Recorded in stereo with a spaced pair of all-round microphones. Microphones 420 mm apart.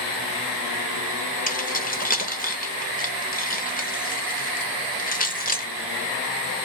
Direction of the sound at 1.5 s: 20° left (ahead or behind).